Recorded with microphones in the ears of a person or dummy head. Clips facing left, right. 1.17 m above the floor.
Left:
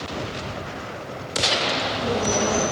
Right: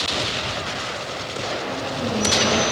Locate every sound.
1.6 s a bird: 25° right (ahead or behind), 4 m